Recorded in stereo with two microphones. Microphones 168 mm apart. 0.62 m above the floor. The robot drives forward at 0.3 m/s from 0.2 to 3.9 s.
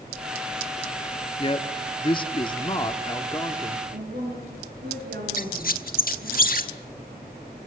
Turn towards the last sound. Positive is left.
turn(degrees=60)  # may be behind; listen again after turning